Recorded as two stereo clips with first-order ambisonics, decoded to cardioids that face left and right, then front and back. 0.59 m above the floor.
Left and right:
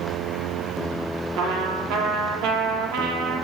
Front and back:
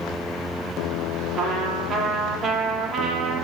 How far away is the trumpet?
About 7 m.